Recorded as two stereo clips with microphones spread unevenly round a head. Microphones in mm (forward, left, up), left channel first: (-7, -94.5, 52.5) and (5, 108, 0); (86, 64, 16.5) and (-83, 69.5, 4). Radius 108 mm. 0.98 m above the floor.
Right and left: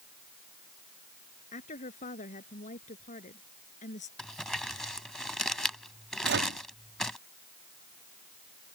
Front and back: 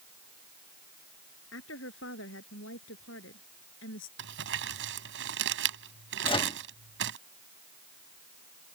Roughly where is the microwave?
Ahead left.